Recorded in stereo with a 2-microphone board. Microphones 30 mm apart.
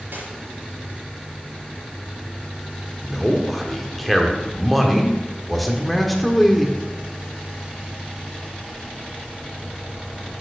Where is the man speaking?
Centre (ahead or behind), 1.4 m.